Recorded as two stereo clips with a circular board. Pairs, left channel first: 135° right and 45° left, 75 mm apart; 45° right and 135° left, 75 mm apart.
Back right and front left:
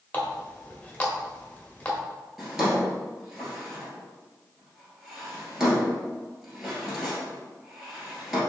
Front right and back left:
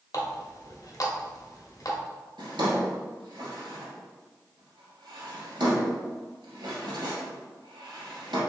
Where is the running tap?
70° right, 0.8 m.